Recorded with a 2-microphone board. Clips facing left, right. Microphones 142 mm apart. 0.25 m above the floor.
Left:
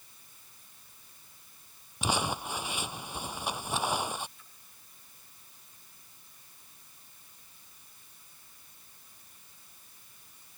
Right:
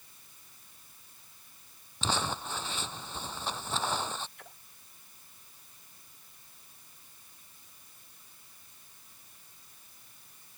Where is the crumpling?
10° left (ahead or behind).